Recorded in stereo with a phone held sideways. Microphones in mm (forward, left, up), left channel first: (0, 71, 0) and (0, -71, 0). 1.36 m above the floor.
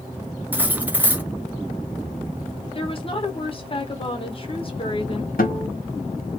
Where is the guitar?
85° left, 1.9 m.